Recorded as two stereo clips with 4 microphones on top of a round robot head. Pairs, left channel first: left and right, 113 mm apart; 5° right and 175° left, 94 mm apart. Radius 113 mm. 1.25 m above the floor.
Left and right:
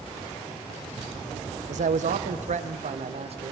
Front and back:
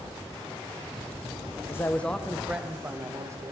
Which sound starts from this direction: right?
A man speaking, at 1.7 s.